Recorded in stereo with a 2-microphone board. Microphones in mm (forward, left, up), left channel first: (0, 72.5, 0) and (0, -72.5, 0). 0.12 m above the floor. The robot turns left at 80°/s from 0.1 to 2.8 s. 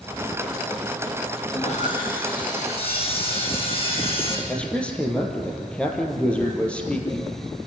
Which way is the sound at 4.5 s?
10° left (ahead or behind).